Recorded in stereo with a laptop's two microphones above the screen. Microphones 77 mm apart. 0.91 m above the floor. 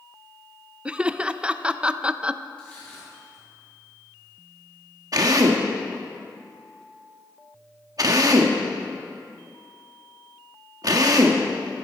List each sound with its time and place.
0.8 s laughter: 15° right (ahead or behind), 0.5 m
2.6 s crushing: 15° left (ahead or behind), 7 m
5.1 s a drill: 50° right (ahead or behind), 1.1 m